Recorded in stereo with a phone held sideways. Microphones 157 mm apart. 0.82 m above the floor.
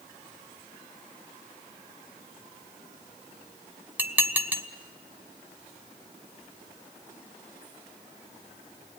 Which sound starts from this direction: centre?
Dishes clattering, at 4.0 s.